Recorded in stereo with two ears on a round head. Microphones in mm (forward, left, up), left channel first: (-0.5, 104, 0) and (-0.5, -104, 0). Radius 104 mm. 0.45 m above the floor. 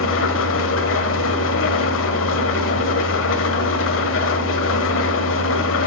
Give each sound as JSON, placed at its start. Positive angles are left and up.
{"t": 0.0, "sound": "an engine running", "side_deg": 60, "distance_m": 1.3}